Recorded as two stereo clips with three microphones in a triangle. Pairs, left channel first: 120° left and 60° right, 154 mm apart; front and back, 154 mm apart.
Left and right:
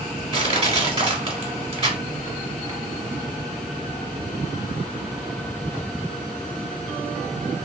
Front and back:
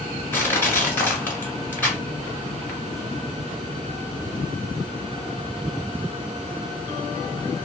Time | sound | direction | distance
0.3 | crushing | 70° right | 1.3 m